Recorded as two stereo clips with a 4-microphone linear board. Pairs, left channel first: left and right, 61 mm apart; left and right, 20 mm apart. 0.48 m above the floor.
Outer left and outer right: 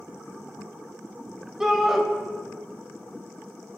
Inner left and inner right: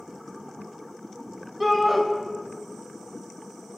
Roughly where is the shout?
Centre.